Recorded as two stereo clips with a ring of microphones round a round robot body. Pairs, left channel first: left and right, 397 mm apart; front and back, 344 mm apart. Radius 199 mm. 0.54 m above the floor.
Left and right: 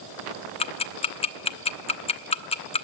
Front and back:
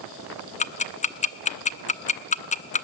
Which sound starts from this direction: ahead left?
Ticking, at 0.6 s.